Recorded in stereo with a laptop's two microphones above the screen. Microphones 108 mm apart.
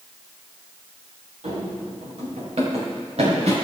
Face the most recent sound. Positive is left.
turn(degrees=-75)  # may be behind; listen again after turning